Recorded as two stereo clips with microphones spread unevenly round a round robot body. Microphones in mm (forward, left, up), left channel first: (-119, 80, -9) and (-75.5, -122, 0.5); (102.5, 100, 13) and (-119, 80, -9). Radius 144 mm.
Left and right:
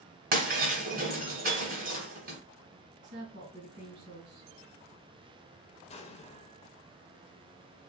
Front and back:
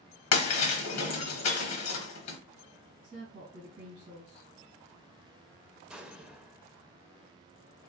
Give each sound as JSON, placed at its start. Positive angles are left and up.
{"t": 0.3, "sound": "breaking glass", "azimuth_deg": -20, "distance_m": 1.1}
{"t": 3.0, "sound": "a woman speaking", "azimuth_deg": -105, "distance_m": 2.5}
{"t": 5.9, "sound": "an explosion", "azimuth_deg": 110, "distance_m": 0.6}